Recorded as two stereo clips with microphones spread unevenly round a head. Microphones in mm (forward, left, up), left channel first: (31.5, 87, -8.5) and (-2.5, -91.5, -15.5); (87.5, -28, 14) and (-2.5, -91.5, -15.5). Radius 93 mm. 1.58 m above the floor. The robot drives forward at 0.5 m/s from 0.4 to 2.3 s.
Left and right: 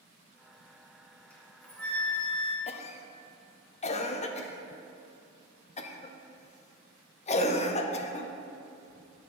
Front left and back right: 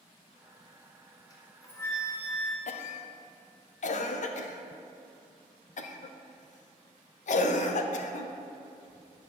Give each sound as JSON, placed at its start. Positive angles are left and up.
{"t": 1.3, "sound": "a flute", "azimuth_deg": 0, "distance_m": 1.3}
{"t": 2.7, "sound": "a cough", "azimuth_deg": 25, "distance_m": 0.6}